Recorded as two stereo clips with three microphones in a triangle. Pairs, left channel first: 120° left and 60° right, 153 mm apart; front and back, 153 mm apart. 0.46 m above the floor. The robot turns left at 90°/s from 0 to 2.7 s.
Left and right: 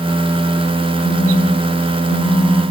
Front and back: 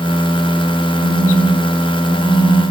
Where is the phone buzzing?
65° left, 5 m; by 2.6 s 80° right, 5 m.